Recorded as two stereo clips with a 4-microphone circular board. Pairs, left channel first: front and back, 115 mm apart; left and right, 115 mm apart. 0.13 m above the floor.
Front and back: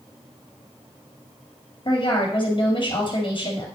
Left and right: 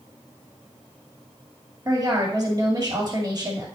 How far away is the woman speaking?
About 2 m.